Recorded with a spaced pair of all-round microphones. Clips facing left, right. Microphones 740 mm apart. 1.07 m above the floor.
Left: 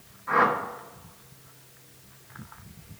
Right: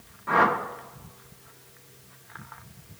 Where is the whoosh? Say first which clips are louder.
Right 1 dB; 65° right (ahead or behind), 0.7 m.